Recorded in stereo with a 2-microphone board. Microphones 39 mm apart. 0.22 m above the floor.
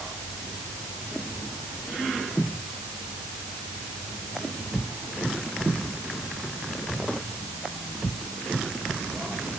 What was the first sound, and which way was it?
Only background noise.